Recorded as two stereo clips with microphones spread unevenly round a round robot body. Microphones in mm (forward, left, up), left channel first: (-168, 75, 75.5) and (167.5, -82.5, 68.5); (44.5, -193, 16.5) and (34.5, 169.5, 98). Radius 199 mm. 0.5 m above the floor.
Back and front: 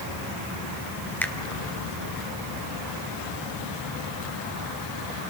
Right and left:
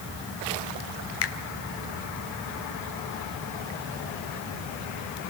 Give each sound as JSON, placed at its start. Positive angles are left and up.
{"t": 1.2, "sound": "a finger snap", "azimuth_deg": -120, "distance_m": 1.4}